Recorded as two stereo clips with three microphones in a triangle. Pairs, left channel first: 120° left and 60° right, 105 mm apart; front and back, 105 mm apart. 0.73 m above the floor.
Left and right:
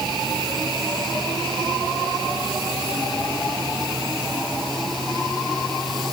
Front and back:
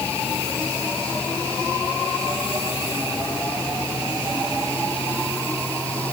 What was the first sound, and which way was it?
Only background noise.